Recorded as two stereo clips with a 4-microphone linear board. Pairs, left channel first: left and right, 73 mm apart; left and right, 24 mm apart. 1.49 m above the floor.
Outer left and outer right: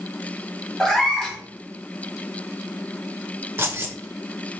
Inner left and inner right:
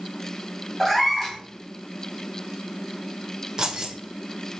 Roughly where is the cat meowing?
Centre.